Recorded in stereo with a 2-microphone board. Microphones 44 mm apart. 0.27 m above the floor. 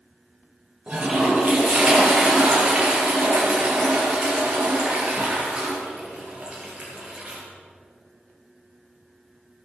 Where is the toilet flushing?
25° right (ahead or behind), 5 m.